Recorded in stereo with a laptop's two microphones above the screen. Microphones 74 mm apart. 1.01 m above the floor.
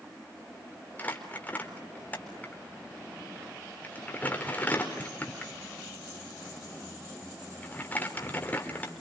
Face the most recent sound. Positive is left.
turn(degrees=20)  # may be behind; listen again after turning